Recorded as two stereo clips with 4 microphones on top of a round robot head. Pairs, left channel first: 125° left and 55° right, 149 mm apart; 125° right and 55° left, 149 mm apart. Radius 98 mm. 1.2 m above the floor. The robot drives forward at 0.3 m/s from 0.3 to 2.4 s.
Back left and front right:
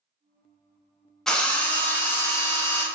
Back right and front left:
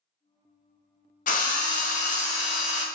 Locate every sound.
1.3 s a drill: 150° right, 0.6 m; by 2.9 s 160° right, 0.8 m